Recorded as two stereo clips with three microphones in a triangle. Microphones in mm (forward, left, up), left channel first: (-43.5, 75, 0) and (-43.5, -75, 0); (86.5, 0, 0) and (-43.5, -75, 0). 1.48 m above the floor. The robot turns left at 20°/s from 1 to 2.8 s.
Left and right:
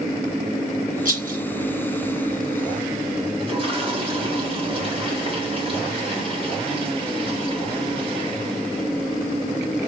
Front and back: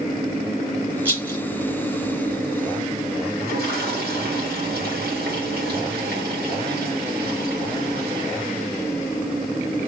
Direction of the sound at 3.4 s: 145° right.